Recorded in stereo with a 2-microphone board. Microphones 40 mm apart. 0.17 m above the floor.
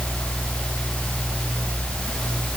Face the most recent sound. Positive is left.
No sound to turn to.